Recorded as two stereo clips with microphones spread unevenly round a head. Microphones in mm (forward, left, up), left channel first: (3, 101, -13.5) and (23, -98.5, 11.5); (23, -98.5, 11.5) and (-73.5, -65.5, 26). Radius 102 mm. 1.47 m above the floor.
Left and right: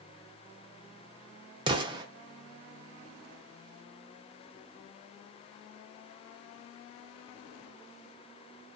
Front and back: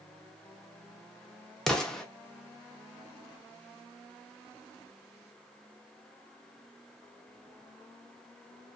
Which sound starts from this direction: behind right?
An explosion, at 1.7 s.